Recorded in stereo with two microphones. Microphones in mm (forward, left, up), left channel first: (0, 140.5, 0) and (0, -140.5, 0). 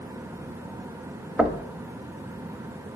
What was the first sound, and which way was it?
Knocking, 5° right (ahead or behind).